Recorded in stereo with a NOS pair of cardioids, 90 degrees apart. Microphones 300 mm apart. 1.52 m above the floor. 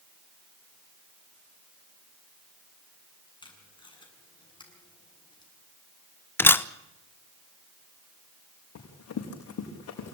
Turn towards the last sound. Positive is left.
turn(degrees=65)